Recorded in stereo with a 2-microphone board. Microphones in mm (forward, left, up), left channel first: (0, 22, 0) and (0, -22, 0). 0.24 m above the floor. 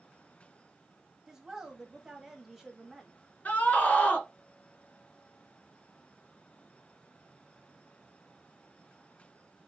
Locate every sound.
1.3 s a woman speaking: 10° right (ahead or behind), 1.1 m
3.5 s a scream: 35° left (ahead or behind), 2.5 m